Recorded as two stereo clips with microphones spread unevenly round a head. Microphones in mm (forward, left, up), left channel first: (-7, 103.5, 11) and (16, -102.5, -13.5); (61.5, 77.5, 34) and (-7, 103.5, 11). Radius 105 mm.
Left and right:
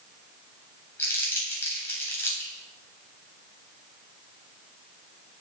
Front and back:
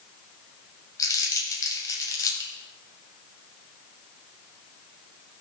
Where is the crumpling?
15° left, 3.5 m.